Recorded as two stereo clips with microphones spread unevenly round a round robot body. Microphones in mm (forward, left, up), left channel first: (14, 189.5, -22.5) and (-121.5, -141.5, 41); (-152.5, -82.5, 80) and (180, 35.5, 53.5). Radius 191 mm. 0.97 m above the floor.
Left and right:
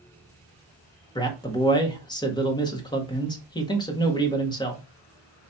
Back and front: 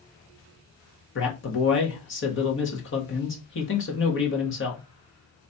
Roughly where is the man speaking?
Behind left.